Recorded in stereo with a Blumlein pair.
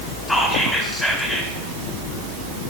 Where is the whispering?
5° left, 4.5 m.